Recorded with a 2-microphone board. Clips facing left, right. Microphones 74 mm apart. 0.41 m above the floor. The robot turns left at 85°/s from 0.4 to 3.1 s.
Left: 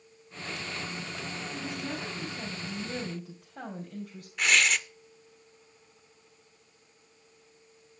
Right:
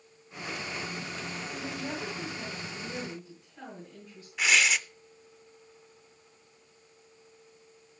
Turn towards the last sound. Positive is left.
turn(degrees=-5)  # may be behind; listen again after turning